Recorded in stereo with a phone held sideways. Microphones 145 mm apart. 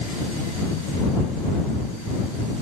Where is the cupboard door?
No cupboard door in this recording.